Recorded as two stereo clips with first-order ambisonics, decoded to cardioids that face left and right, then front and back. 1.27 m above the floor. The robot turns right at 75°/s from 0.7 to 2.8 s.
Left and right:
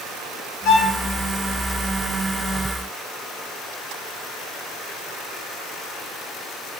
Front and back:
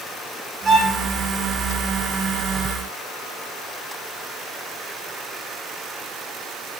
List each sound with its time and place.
0.7 s a violin: 110° left, 0.5 m; by 1.0 s 135° left, 0.5 m